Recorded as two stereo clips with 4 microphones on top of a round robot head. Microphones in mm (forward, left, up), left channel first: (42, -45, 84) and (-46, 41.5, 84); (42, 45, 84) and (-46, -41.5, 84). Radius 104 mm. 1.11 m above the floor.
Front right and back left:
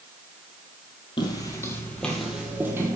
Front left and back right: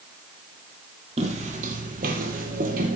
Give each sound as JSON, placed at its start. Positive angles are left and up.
{"t": 1.2, "sound": "footsteps", "azimuth_deg": -95, "distance_m": 1.7}